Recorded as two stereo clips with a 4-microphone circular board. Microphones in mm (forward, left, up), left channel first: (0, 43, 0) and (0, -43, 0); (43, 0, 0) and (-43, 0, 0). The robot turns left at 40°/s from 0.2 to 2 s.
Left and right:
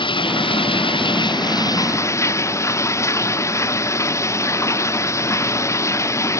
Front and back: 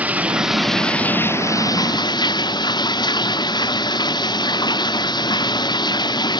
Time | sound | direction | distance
0.0 | running water | 105° left | ?